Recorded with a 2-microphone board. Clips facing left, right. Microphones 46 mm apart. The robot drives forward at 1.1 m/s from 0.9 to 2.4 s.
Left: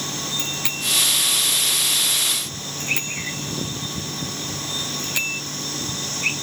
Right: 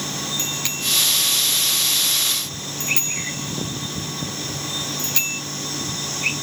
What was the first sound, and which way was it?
A bicycle bell, 10° left (ahead or behind).